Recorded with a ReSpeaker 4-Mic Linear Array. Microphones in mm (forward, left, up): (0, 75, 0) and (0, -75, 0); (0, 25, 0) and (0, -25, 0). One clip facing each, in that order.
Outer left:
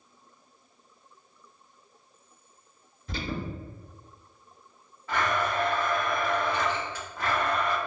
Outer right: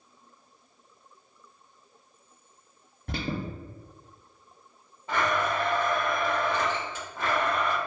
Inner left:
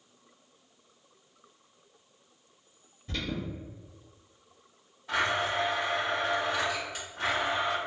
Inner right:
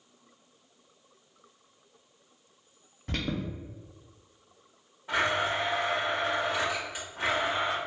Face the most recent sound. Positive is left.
turn(degrees=-20)  # may be behind; listen again after turning